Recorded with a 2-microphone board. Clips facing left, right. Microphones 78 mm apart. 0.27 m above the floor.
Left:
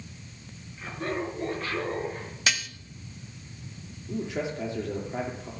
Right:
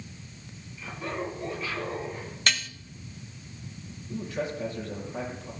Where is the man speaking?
75° left (ahead or behind), 5.5 m.